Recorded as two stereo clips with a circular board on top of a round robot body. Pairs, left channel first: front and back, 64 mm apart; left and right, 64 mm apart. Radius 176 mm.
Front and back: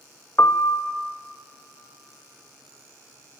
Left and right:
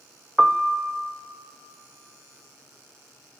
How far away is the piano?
About 0.6 m.